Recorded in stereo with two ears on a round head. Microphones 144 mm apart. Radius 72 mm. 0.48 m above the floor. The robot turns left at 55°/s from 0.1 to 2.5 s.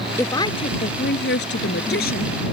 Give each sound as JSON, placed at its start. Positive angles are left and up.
{"t": 0.2, "sound": "a woman speaking", "azimuth_deg": 165}